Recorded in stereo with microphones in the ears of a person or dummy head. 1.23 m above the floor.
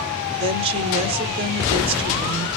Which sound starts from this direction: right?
A woman speaking, at 0.4 s.